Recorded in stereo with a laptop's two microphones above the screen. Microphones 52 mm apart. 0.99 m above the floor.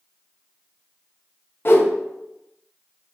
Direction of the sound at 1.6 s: 45° left (ahead or behind).